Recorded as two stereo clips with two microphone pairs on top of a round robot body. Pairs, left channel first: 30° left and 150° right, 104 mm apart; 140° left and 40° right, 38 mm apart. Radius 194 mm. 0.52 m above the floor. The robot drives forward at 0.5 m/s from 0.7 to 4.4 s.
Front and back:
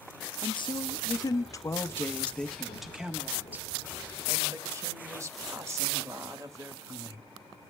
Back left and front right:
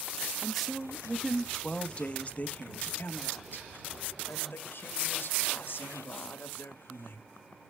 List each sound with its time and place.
0.4 s a woman speaking: 45° left, 1.3 m; by 7.3 s 150° left, 1.6 m